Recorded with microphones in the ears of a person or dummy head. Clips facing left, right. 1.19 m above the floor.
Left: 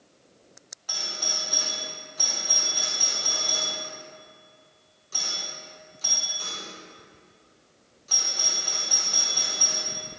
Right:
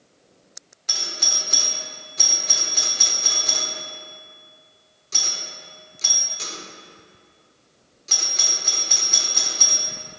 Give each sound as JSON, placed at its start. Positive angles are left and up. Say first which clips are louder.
{"t": 0.9, "sound": "a doorbell", "louder": "right 1 dB", "side_deg": -25, "distance_m": 1.4}